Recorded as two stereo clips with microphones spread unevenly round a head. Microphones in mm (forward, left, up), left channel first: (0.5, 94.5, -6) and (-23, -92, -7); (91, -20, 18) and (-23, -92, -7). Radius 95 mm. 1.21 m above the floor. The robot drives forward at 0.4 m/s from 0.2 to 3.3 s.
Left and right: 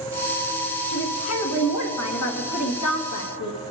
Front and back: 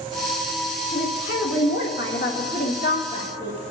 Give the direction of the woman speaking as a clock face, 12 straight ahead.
10 o'clock.